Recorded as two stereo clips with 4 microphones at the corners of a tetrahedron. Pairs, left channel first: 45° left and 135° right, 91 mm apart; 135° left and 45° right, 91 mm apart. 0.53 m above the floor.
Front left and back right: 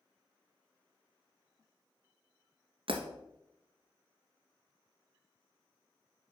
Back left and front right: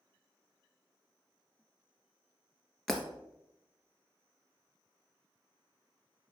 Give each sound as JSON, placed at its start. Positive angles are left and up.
{"t": 2.9, "sound": "breaking glass", "azimuth_deg": -140, "distance_m": 1.5}